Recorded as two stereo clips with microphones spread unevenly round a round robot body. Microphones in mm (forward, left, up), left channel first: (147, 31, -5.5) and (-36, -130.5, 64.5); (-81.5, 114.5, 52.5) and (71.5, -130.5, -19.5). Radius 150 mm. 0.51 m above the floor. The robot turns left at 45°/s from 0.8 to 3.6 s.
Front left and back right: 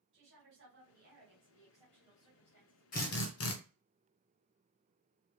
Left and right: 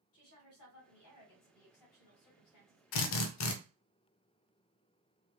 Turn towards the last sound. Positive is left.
turn(degrees=75)